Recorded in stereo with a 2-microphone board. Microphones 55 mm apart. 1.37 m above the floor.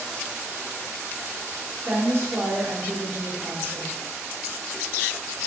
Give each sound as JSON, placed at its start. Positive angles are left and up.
{"t": 1.9, "sound": "a woman speaking", "side_deg": -45, "distance_m": 0.8}